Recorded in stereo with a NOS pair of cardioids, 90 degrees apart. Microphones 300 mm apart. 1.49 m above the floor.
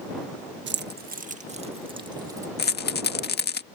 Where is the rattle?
35° left.